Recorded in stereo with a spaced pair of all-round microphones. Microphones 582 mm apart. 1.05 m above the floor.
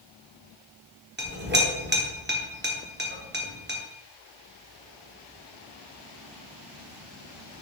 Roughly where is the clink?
Centre.